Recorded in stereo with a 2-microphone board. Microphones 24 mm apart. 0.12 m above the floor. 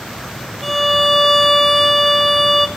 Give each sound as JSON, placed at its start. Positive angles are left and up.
{"t": 0.6, "sound": "a violin", "side_deg": 0, "distance_m": 0.7}